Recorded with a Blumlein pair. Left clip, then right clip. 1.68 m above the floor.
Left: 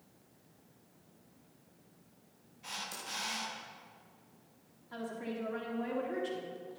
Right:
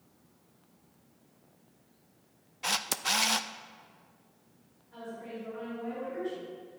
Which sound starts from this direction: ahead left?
A woman speaking, at 4.9 s.